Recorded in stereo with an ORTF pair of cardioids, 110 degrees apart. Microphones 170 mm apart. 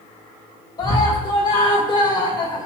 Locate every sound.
0.8 s a scream: 25° left, 2 m